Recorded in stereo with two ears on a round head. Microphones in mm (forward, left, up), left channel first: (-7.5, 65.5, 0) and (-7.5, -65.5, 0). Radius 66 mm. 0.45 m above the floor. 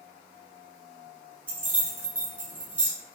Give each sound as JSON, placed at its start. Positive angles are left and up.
{"t": 1.5, "sound": "keys jangling", "side_deg": -10, "distance_m": 0.8}